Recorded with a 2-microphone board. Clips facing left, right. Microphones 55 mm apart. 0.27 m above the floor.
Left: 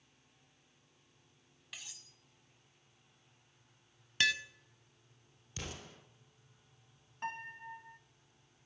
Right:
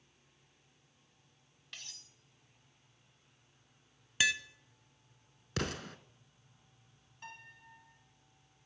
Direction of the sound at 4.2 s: 5° right (ahead or behind).